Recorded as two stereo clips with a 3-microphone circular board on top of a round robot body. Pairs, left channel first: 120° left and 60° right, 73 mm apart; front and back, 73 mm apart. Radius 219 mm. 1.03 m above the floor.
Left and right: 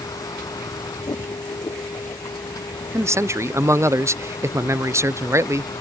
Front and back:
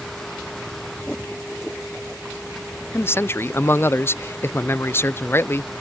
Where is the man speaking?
40° right.